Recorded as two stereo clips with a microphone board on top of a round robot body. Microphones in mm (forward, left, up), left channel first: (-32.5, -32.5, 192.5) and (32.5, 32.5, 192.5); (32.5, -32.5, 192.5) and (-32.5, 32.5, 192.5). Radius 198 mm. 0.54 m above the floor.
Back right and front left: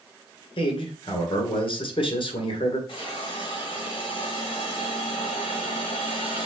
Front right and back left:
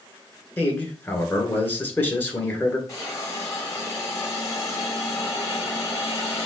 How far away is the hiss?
About 2 m.